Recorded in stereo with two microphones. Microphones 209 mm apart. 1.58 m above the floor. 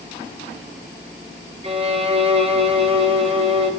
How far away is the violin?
About 5 m.